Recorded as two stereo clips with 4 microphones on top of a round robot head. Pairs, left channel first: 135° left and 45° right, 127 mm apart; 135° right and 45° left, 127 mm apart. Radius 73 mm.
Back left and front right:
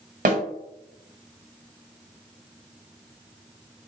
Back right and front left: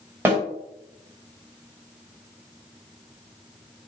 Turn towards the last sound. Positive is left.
turn(degrees=-25)